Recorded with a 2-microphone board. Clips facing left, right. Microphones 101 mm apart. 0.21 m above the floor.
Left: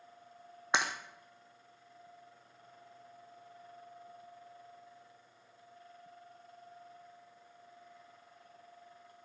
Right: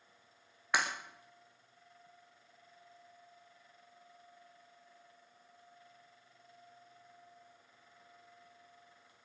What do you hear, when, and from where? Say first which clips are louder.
0.7 s breaking glass: left 1 dB; 25° left (ahead or behind), 3 m